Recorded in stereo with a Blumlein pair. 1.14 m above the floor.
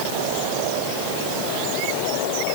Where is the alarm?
I don't hear an alarm.